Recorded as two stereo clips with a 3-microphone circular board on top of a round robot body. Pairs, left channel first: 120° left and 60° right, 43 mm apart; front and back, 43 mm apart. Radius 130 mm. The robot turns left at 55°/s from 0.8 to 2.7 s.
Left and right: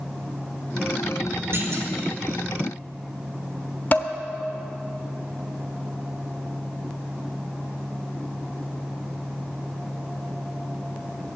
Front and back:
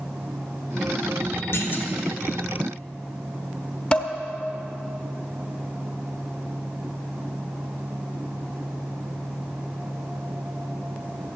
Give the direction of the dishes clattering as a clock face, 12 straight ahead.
10 o'clock.